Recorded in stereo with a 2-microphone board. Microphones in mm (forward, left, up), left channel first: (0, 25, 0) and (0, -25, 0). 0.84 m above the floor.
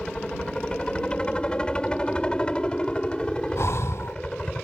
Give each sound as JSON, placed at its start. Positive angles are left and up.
{"t": 0.0, "sound": "a helicopter", "side_deg": 20}
{"t": 3.6, "sound": "breathing", "side_deg": 65}